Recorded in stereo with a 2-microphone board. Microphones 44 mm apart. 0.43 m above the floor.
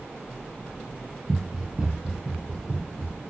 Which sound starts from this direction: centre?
Running footsteps, at 1.3 s.